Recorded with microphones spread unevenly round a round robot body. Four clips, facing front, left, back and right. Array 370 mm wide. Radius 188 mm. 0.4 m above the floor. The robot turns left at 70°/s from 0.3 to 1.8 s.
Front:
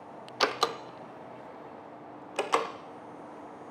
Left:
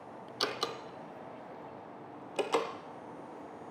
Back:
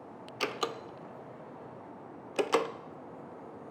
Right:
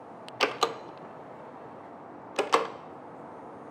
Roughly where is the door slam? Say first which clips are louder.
Right 8 dB, front 6 dB; ahead right.